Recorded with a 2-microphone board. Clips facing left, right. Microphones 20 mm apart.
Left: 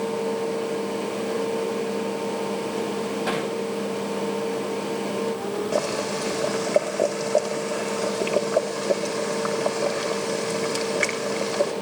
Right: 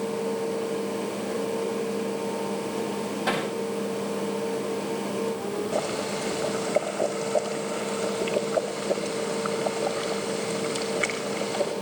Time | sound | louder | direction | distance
3.3 | hammering | right 2 dB | 5° left (ahead or behind) | 9 m
5.7 | boiling | left 4 dB | 70° left (ahead or behind) | 6.5 m